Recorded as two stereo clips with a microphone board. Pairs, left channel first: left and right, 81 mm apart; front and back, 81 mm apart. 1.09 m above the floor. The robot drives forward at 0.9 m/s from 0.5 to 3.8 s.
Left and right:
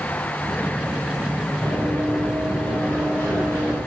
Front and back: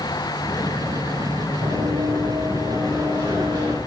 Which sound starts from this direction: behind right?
Running footsteps, at 1.6 s.